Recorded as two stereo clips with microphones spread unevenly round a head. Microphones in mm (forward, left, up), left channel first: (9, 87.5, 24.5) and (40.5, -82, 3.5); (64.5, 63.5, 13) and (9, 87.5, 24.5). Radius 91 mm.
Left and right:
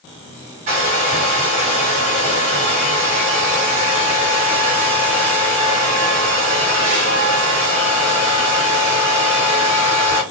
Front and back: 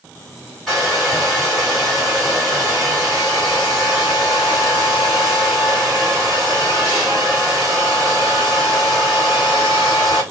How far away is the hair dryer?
About 1.7 m.